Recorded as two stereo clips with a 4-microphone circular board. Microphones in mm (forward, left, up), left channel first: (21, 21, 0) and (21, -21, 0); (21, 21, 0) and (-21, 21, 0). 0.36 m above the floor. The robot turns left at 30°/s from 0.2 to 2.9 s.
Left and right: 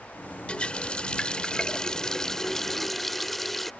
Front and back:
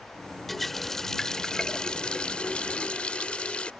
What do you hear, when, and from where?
0.5 s a running tap: 85° left; by 3.7 s 10° left